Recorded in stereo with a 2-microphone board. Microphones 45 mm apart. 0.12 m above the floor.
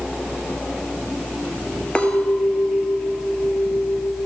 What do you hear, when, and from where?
1.9 s a clink: 25° left (ahead or behind), 1.1 m